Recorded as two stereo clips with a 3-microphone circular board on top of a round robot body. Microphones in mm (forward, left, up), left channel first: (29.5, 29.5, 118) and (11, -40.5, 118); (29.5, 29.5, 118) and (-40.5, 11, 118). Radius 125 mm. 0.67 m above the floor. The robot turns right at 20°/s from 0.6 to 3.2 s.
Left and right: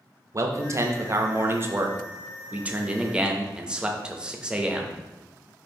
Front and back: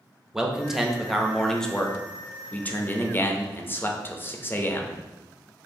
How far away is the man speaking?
About 0.7 m.